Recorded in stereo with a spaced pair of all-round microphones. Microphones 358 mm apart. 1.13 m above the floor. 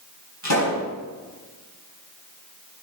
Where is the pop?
50° left (ahead or behind), 4.5 m.